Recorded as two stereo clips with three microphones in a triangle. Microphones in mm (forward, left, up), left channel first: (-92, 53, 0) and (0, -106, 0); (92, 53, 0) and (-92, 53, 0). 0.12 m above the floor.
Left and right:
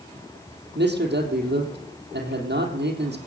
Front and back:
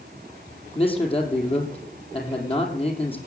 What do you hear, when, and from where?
0.8 s a man speaking: 55° right, 4 m